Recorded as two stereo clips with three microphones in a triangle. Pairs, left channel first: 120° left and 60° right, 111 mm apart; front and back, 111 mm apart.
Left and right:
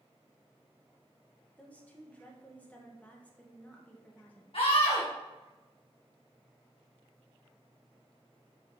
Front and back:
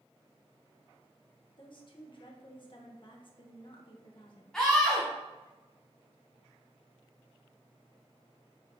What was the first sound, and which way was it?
A woman speaking, 45° left.